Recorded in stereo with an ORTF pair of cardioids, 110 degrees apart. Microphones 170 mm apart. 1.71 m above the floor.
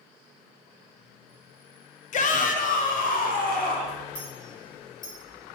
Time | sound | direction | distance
2.1 | a shout | 50° left | 1.0 m
4.2 | a clink | 25° left | 3.5 m